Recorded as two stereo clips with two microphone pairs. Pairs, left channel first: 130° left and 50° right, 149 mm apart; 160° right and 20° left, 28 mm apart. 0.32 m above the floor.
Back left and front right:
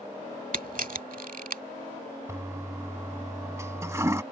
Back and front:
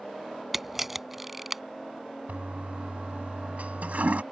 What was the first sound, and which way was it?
A camera shutter, 60° right.